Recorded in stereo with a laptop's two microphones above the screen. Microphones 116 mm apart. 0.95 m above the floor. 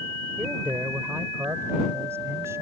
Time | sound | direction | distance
0.4 | a man speaking | 15° right (ahead or behind) | ?